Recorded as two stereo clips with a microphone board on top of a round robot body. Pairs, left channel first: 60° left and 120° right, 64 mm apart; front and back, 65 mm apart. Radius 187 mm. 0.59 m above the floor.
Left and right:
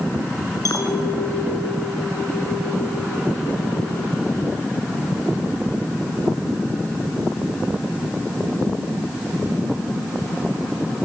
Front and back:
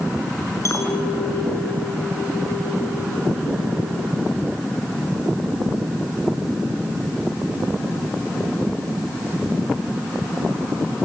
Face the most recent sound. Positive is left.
turn(degrees=35)